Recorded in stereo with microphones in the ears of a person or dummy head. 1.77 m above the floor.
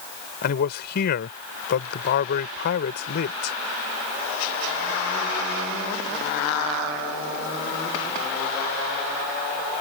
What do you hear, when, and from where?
0.4 s a man speaking: 55° left (ahead or behind)